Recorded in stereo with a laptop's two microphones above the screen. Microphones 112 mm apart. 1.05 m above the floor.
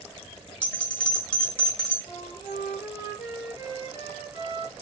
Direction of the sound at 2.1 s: 40° right (ahead or behind).